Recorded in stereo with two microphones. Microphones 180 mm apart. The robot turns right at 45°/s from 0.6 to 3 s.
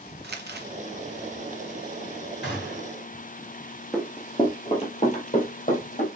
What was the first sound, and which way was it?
Crumpling, 65° right (ahead or behind).